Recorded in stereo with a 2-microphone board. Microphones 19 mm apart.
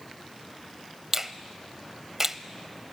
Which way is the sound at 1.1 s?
20° right (ahead or behind).